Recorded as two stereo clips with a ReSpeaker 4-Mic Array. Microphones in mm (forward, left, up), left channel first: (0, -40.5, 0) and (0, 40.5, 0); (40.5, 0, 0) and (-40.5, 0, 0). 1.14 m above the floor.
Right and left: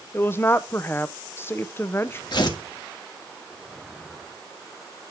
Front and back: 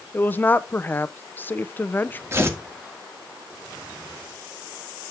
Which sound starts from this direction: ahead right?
A woman speaking, at 0.1 s.